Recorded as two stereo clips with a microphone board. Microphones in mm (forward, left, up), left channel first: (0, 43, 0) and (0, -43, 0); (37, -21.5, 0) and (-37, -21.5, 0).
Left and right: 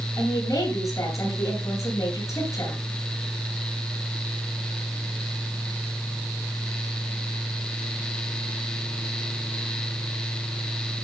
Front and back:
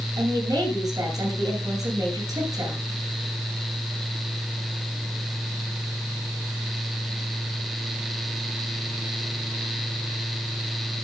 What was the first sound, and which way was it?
A woman speaking, 140° left.